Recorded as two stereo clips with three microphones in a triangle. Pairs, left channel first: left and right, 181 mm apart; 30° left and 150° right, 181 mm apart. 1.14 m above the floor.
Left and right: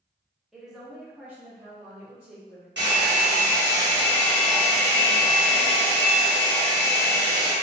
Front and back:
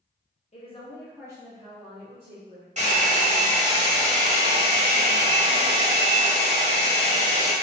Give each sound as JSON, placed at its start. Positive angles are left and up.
{"t": 0.5, "sound": "a woman speaking", "azimuth_deg": -5, "distance_m": 0.8}
{"t": 2.8, "sound": "a hair dryer", "azimuth_deg": -100, "distance_m": 1.1}